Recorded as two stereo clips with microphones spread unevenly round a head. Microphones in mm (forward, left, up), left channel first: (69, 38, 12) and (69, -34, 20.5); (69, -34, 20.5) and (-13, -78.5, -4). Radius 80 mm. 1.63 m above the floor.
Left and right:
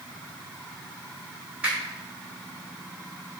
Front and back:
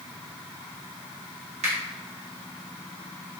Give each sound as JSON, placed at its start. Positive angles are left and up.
{"t": 1.6, "sound": "a finger snap", "azimuth_deg": -165, "distance_m": 1.0}